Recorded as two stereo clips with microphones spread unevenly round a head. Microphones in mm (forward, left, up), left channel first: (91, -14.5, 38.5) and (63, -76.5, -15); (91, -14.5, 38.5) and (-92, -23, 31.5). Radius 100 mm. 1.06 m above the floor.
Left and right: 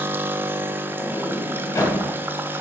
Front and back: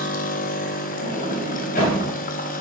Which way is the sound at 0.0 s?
40° right.